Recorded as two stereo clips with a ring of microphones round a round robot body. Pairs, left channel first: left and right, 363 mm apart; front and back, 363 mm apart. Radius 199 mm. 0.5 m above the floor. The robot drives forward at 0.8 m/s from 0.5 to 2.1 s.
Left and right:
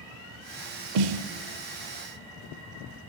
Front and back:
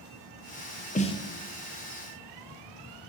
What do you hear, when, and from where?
0.9 s a snare drum: 70° right, 1.0 m; by 1.3 s 85° right, 1.0 m